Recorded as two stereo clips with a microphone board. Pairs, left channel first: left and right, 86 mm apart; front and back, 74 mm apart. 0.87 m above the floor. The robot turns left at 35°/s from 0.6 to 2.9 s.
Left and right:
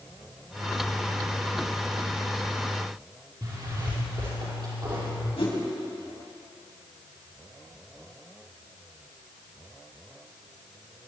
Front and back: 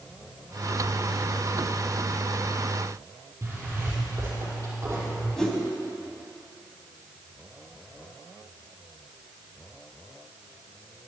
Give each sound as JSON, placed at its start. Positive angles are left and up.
{"t": 3.4, "sound": "a zipper", "azimuth_deg": -125, "distance_m": 5.5}
{"t": 5.4, "sound": "a whoosh", "azimuth_deg": 85, "distance_m": 3.0}